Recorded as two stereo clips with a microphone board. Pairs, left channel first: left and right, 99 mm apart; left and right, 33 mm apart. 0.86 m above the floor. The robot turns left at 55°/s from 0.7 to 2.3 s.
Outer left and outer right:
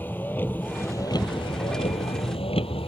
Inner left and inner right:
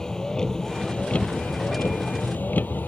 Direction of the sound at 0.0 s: 160° left.